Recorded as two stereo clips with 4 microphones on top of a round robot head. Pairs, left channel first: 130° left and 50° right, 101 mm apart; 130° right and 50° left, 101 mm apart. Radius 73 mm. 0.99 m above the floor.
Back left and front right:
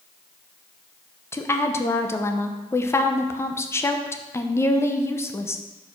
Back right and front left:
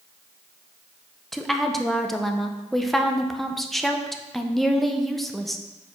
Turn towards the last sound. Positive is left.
turn(degrees=140)